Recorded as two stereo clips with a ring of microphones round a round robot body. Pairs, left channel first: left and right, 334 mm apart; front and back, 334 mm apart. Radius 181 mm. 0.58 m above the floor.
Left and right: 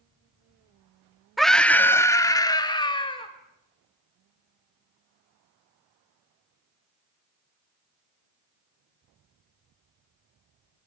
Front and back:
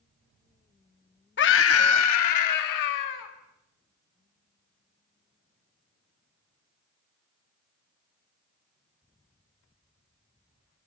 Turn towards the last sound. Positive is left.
turn(degrees=15)